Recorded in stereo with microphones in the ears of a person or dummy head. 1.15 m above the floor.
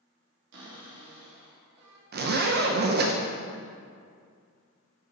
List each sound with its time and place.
0.5 s a cupboard door: 65° right (ahead or behind), 1.4 m
2.1 s a zipper: 55° right (ahead or behind), 0.5 m